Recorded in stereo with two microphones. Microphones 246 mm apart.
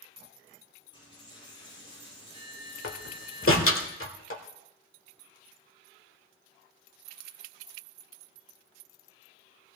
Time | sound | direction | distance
0.9 | a dropped coin | 20° left (ahead or behind) | 9 m
2.8 | a door slam | 60° left (ahead or behind) | 1.3 m